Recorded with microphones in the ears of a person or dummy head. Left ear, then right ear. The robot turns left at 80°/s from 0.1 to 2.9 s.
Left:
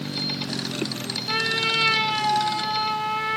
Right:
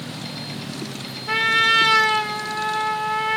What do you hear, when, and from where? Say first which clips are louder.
1.3 s a trumpet: right 6 dB; 35° right, 0.7 m; by 3.4 s 165° right, 0.7 m